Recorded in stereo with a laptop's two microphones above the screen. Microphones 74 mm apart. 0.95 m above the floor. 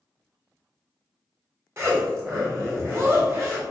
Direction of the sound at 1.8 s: 40° right (ahead or behind).